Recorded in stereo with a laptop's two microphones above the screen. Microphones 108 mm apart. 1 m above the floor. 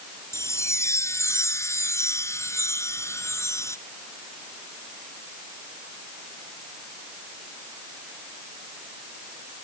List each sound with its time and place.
0.3 s a chime: 25° left (ahead or behind)